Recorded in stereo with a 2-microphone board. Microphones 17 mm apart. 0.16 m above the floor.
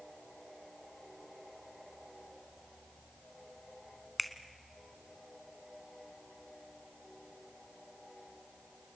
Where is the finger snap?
Centre (ahead or behind), 1.0 m.